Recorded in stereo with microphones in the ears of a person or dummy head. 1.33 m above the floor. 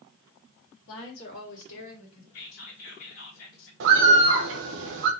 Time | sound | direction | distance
0.9 | a woman speaking | 75° left (ahead or behind) | 1.5 m
2.3 | whispering | 55° left (ahead or behind) | 1.0 m
3.8 | a bird | 60° right (ahead or behind) | 0.7 m